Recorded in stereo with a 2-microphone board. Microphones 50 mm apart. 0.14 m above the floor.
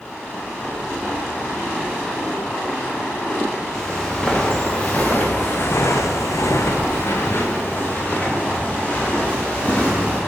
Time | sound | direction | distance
3.7 | footsteps | 10° left (ahead or behind) | 1.7 m